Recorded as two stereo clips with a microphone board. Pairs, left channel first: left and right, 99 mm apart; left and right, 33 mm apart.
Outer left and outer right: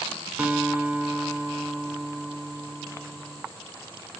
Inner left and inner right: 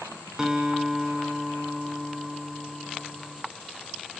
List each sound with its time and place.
0.4 s a guitar: 15° right (ahead or behind), 0.7 m